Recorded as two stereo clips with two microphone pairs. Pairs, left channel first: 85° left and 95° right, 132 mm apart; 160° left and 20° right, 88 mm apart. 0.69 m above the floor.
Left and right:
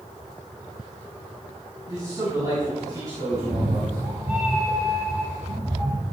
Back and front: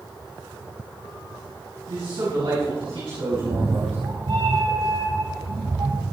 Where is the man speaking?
30° right, 6 m.